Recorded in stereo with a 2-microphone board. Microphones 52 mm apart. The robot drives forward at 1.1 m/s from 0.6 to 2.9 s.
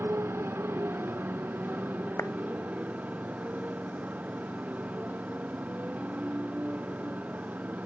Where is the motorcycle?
50° right (ahead or behind); by 7.9 s 30° right (ahead or behind).